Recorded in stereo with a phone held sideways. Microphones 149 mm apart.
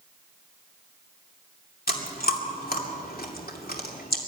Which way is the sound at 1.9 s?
85° left.